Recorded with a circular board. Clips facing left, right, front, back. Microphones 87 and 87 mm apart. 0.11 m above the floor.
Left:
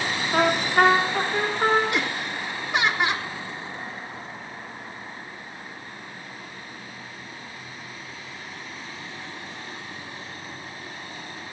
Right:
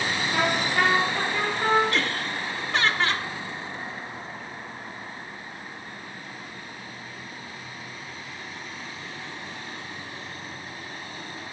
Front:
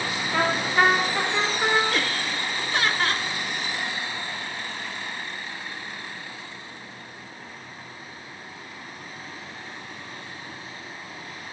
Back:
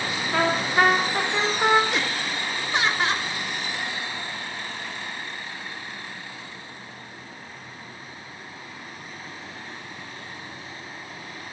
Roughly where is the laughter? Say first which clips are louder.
Even, even; behind left.